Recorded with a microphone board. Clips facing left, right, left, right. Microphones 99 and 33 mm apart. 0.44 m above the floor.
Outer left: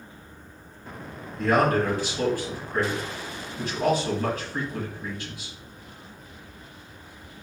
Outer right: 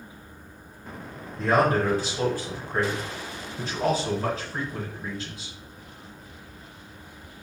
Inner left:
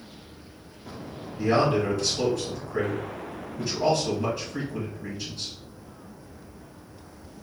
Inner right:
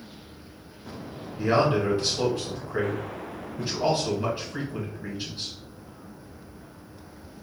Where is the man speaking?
30° right (ahead or behind), 2 m.